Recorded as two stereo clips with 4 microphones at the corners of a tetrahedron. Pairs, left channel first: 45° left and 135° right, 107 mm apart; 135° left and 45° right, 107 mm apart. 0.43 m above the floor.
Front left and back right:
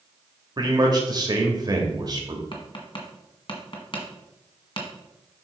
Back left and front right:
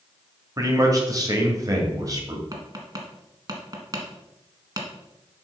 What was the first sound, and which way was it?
A man speaking, 95° right.